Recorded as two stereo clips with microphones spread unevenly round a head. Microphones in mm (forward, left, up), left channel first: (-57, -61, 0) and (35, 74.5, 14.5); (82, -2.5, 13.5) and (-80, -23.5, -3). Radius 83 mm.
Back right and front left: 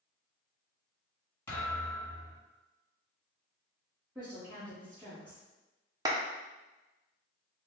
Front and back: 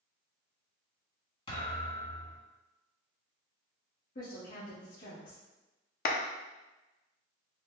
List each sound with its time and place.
1.5 s a thud: 45° right, 1.9 m
4.2 s a woman speaking: 30° right, 1.4 m
6.0 s a clap: 5° right, 0.6 m